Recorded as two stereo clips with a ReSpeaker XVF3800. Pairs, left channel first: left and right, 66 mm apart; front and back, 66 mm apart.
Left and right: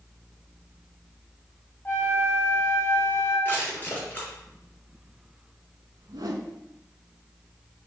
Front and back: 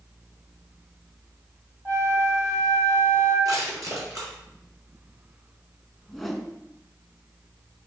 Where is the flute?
135° left, 2.5 m.